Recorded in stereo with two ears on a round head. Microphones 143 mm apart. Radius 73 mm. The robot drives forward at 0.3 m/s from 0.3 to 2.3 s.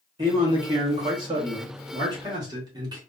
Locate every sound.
0.2 s a man speaking: 30° right (ahead or behind), 1.2 m